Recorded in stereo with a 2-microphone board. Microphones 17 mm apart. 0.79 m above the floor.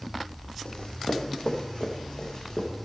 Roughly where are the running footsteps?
Left.